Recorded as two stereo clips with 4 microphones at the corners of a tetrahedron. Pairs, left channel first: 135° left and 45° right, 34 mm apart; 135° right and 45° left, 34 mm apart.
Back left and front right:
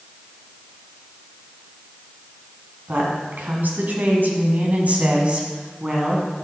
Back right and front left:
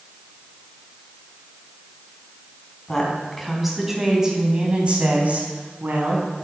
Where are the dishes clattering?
I don't hear dishes clattering.